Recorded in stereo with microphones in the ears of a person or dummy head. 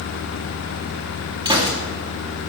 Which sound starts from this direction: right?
A gunshot, at 1.4 s.